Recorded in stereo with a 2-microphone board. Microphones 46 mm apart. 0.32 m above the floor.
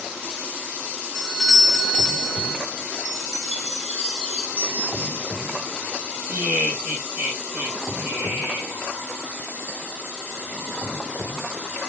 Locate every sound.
1.1 s a doorbell: centre (ahead or behind), 1.4 m
3.0 s a chime: centre (ahead or behind), 1.3 m
4.6 s a bell: 65° right (ahead or behind), 2.0 m
6.3 s laughter: 40° right (ahead or behind), 2.0 m